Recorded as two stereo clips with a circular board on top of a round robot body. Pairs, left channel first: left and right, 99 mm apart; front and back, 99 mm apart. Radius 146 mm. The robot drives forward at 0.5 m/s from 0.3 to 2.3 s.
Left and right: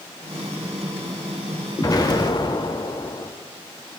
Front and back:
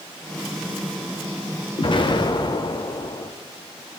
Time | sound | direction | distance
1.8 | an explosion | 35° left | 1.2 m